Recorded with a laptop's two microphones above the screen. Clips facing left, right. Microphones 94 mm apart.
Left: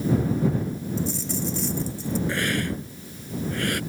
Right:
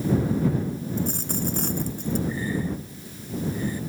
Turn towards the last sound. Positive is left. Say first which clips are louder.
# left 1 dB
turn(degrees=85)